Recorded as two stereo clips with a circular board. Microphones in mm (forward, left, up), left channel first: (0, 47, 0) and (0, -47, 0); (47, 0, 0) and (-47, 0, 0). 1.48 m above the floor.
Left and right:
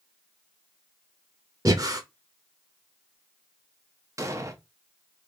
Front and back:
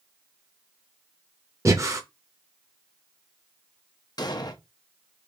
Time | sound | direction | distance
1.6 | breathing | 130° right | 0.6 m
4.2 | an explosion | 35° right | 0.5 m